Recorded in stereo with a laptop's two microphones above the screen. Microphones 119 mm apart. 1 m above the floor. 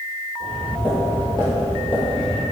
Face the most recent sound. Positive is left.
turn(degrees=55)  # may be behind; listen again after turning